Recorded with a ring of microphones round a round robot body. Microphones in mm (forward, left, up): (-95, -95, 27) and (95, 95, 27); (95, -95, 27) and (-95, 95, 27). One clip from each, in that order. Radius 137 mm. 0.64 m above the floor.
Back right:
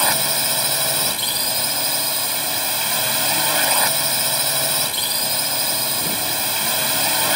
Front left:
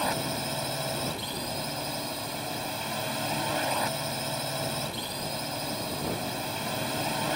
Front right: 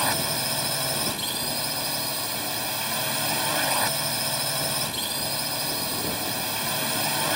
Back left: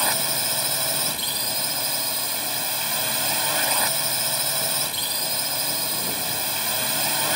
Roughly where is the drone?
Behind.